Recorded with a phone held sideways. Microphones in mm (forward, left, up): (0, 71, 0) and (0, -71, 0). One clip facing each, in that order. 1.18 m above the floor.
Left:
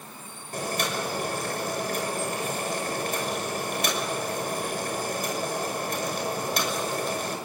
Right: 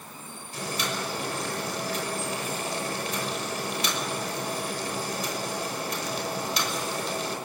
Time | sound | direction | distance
0.5 | boiling | 50° left (ahead or behind) | 5.5 m